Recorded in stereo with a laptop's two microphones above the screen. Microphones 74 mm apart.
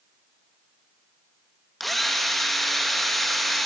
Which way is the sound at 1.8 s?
Centre (ahead or behind).